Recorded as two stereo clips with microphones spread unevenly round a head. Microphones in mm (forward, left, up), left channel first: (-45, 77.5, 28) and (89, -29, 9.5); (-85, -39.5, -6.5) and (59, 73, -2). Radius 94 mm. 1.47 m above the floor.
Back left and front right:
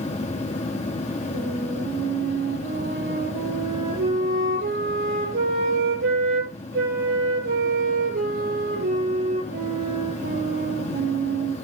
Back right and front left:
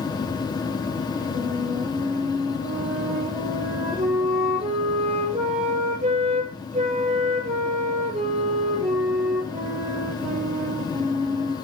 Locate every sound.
0.0 s a fan: 160° left, 1.1 m
1.3 s a flute: 20° right, 7.5 m